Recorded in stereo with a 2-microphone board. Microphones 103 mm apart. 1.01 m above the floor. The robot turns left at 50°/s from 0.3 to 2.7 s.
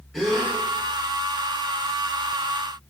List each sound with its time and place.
0.1 s a gasp: centre (ahead or behind), 0.9 m; by 0.5 s 10° left (ahead or behind), 0.9 m